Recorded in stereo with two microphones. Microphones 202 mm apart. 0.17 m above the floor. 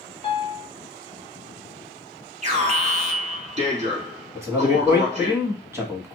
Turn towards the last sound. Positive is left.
turn(degrees=-15)  # may be behind; listen again after turning